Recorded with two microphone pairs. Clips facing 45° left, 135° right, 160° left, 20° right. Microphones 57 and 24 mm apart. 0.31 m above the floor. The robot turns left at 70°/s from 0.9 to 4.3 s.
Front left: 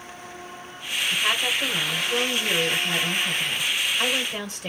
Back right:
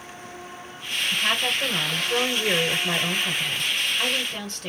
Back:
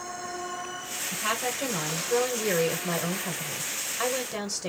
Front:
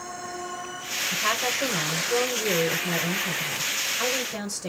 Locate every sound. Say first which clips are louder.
1.1 s a woman speaking: even, front 4 dB; 25° right, 1.0 m; by 4.7 s 110° left, 1.0 m